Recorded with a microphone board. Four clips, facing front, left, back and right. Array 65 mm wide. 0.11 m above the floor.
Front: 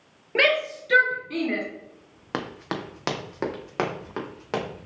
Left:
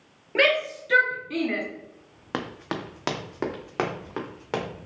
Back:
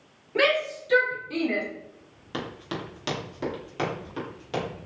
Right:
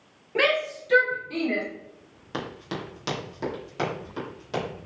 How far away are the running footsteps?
About 1.0 m.